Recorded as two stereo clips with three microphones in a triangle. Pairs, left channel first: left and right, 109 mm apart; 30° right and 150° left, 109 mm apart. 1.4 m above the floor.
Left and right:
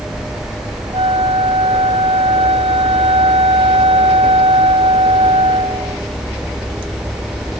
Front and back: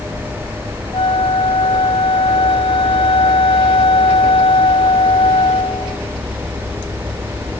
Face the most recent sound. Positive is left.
turn(degrees=-65)